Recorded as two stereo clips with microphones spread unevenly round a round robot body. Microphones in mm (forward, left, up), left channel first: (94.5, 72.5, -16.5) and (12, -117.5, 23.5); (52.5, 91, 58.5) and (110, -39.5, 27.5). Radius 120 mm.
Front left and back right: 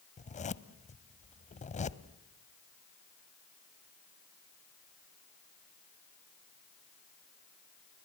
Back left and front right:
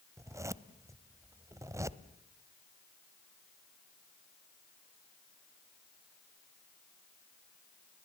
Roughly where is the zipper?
Ahead.